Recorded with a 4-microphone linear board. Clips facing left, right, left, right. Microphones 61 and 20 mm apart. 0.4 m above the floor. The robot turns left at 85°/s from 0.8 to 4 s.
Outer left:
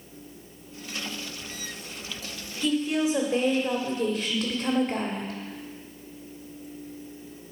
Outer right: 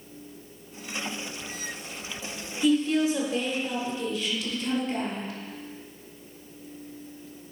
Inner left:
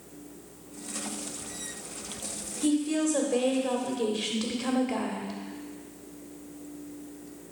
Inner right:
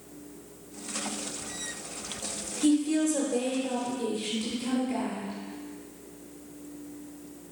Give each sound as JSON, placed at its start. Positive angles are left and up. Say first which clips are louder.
{"t": 2.6, "sound": "a woman speaking", "louder": "outer right 2 dB, inner right 2 dB", "azimuth_deg": -170, "distance_m": 1.7}